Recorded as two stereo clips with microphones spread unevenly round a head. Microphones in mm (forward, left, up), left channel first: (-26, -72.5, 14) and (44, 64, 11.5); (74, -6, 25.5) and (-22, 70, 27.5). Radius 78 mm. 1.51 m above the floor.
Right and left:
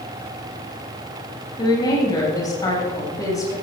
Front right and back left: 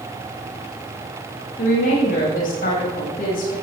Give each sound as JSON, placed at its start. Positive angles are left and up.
{"t": 1.6, "sound": "a woman speaking", "azimuth_deg": -55, "distance_m": 9.0}